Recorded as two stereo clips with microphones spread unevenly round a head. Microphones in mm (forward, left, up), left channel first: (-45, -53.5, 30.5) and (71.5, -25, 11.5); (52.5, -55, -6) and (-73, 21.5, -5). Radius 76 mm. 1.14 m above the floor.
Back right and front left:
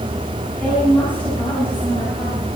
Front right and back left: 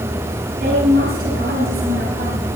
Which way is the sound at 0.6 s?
115° left.